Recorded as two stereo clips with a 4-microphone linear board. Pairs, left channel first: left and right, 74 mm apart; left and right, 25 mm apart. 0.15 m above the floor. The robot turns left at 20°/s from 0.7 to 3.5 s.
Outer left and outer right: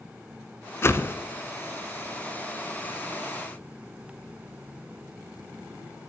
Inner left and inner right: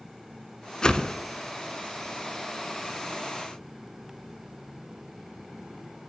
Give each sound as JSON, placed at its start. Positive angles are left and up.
{"t": 0.8, "sound": "a whoosh", "side_deg": 35, "distance_m": 0.6}